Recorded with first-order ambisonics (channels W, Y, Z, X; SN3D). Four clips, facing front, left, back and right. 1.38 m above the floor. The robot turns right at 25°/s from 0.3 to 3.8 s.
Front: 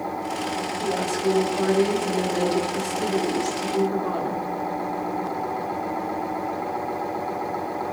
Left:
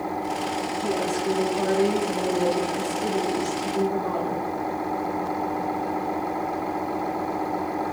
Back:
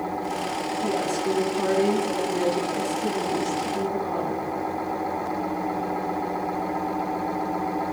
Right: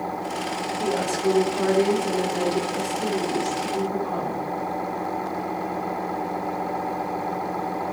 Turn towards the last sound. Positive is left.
turn(degrees=5)